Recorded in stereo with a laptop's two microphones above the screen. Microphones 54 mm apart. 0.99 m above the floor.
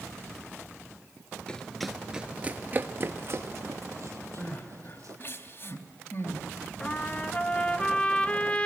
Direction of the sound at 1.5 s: 15° left (ahead or behind).